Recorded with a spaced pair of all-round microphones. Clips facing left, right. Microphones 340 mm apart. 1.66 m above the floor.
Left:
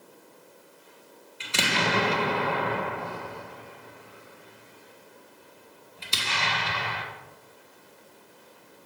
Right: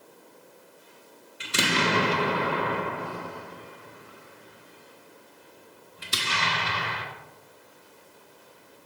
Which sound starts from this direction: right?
An explosion, at 1.4 s.